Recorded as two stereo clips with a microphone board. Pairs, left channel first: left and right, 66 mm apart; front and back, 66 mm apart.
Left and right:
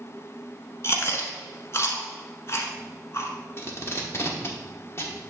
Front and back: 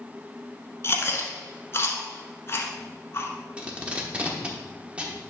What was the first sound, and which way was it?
Chewing, 45° left.